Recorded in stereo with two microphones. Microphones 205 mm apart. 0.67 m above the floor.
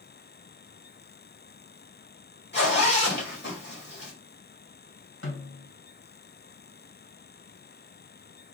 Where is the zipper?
50° left (ahead or behind), 1.8 m.